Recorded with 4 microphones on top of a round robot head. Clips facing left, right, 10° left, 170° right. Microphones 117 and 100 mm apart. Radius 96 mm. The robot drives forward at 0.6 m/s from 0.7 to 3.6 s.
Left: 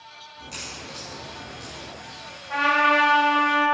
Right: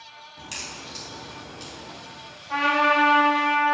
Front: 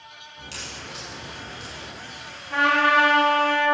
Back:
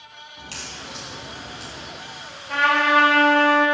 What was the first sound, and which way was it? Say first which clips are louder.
A crack: even, back 1 dB; 115° right.